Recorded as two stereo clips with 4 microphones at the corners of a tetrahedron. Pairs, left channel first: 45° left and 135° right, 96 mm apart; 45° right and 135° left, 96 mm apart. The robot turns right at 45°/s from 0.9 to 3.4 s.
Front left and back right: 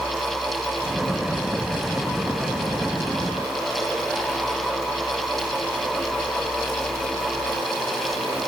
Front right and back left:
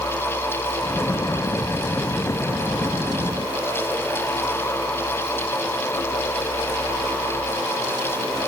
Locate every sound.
Only background noise.